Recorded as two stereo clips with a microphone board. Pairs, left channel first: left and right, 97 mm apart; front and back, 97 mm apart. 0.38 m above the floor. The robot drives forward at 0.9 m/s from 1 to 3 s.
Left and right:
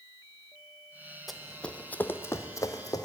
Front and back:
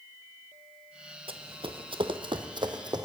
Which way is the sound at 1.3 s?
Straight behind.